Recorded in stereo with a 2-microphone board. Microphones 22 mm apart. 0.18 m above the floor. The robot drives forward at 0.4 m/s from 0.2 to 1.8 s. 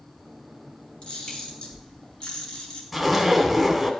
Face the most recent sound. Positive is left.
turn(degrees=0)  # may be behind; listen again after turning